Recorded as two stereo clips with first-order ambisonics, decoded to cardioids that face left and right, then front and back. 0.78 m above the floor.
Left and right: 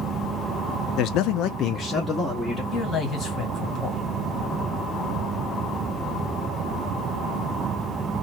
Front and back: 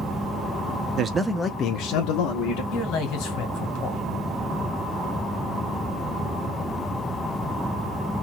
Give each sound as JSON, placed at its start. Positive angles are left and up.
{"t": 1.0, "sound": "a man speaking", "azimuth_deg": 125, "distance_m": 0.7}
{"t": 2.7, "sound": "a man speaking", "azimuth_deg": 25, "distance_m": 1.9}